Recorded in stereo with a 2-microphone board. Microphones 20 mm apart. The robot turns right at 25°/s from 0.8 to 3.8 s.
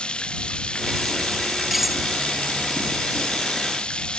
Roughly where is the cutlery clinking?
Centre.